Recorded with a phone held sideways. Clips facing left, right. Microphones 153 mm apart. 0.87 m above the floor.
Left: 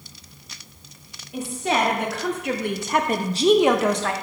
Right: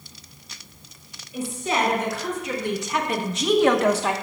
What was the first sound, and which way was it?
A woman speaking, 75° left (ahead or behind).